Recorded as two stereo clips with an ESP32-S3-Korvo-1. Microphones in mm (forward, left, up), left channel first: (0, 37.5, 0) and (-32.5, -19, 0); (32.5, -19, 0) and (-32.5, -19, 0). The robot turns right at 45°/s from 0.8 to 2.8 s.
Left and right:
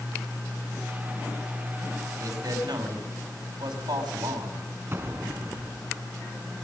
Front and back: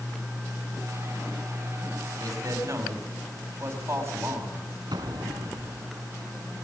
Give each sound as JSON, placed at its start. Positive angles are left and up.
{"t": 2.2, "sound": "a man speaking", "azimuth_deg": -155, "distance_m": 5.0}
{"t": 4.9, "sound": "an explosion", "azimuth_deg": -175, "distance_m": 2.5}